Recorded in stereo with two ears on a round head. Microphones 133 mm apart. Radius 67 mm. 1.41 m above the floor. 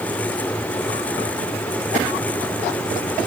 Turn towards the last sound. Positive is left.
No sound to turn to.